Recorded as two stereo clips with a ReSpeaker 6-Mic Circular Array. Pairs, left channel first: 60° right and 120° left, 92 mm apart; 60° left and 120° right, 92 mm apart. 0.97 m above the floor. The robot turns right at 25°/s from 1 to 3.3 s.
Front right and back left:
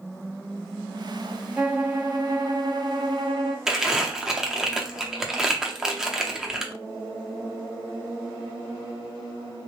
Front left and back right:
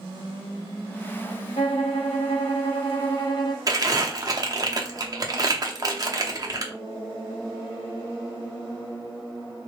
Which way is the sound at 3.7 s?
160° right.